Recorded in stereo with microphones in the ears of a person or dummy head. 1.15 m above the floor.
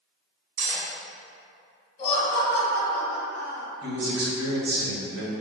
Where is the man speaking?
75° right (ahead or behind), 1.4 m.